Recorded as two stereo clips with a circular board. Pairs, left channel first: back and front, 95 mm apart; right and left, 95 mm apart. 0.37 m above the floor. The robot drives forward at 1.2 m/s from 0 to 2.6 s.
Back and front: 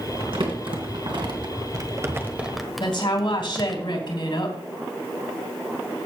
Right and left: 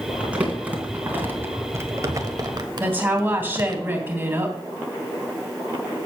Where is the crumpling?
15° left, 3 m; by 3.8 s 90° left, 1.2 m.